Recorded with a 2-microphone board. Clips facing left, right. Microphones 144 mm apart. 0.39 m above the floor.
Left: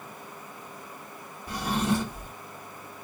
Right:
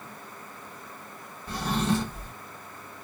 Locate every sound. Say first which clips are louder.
1.5 s a drawer: even; 10° left (ahead or behind), 1.0 m